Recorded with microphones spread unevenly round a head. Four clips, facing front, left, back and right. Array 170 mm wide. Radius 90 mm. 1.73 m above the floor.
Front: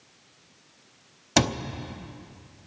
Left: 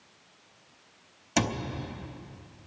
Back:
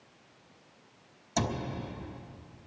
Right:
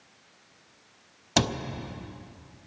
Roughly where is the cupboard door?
Ahead right.